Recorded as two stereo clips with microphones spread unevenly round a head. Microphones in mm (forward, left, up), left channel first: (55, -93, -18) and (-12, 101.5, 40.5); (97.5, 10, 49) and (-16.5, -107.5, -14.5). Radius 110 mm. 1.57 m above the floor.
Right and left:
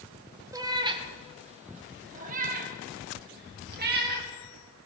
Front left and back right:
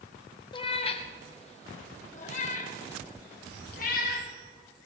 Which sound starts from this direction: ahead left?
A cat meowing, at 0.5 s.